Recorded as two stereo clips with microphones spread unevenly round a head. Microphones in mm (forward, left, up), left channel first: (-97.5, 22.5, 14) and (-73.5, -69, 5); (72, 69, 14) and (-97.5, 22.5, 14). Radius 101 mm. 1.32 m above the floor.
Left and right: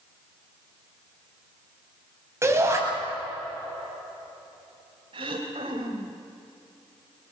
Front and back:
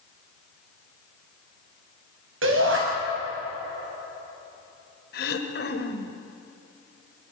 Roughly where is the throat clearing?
Ahead.